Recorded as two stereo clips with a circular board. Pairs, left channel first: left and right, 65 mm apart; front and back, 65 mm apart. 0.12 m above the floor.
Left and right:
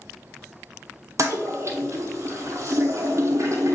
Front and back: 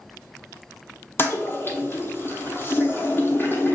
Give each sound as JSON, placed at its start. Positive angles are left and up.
{"t": 1.2, "sound": "a toilet flushing", "azimuth_deg": -50, "distance_m": 0.8}